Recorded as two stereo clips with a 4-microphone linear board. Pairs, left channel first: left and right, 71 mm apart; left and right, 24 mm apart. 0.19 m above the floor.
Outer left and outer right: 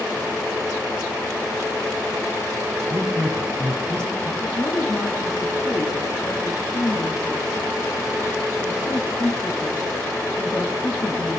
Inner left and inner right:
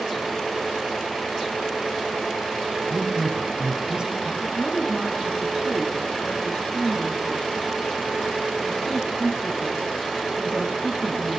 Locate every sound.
2.9 s a woman speaking: 40° right (ahead or behind), 1.8 m
4.4 s a woman speaking: 60° left (ahead or behind), 3 m